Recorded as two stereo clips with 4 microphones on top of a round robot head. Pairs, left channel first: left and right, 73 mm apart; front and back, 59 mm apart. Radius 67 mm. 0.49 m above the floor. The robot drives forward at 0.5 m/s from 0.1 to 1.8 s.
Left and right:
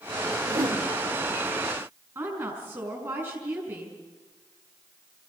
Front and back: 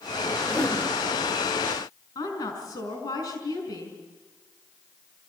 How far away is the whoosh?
About 1.8 m.